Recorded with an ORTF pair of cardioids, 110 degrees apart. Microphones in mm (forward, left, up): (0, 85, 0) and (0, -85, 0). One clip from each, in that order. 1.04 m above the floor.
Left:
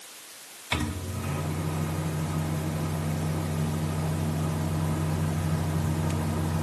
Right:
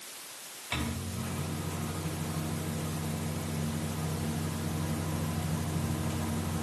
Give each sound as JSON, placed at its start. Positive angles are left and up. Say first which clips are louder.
{"t": 0.7, "sound": "a microwave", "louder": "left 5 dB", "azimuth_deg": 45, "distance_m": 1.3}